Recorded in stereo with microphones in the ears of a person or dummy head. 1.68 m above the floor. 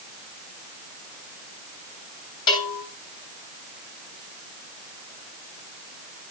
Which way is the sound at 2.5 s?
30° left (ahead or behind).